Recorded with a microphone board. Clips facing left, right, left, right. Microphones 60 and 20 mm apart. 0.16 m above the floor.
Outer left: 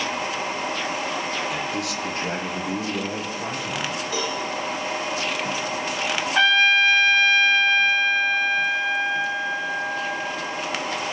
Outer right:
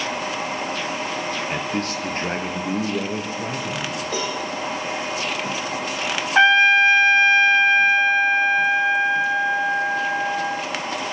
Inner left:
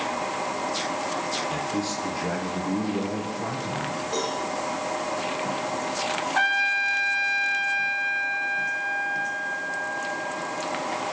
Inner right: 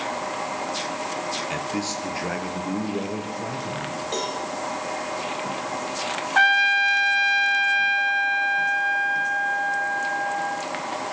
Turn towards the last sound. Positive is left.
turn(degrees=-25)  # may be behind; listen again after turning